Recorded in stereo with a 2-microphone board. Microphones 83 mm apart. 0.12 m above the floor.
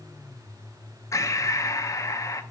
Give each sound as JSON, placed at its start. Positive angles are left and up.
{"t": 1.1, "sound": "breathing", "side_deg": 40, "distance_m": 0.6}